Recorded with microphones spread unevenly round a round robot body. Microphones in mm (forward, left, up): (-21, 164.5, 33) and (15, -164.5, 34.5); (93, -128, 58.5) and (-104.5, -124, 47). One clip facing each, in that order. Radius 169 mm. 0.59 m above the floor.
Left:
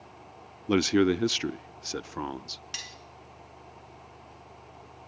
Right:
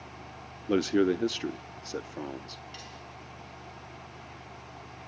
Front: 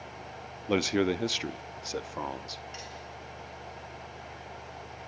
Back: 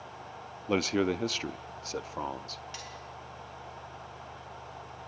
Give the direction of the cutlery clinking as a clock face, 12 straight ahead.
8 o'clock.